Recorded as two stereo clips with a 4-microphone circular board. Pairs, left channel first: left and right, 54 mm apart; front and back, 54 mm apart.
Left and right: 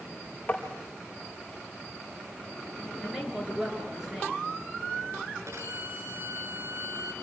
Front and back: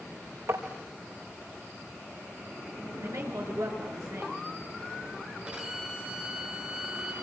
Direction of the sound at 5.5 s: 115° right.